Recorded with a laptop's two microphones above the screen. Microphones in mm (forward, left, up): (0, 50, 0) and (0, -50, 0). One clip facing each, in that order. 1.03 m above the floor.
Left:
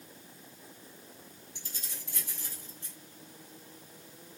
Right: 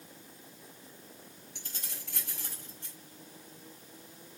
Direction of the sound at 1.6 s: 60° right (ahead or behind).